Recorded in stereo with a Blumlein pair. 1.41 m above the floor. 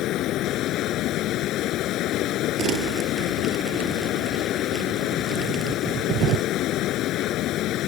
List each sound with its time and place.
0.0 s running water: 35° left
2.6 s crumpling: 35° right